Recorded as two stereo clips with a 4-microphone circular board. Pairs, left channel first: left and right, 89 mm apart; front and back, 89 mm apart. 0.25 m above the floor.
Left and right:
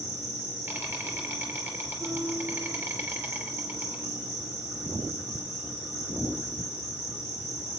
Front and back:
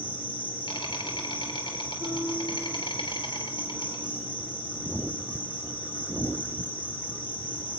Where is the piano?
85° right, 5.5 m.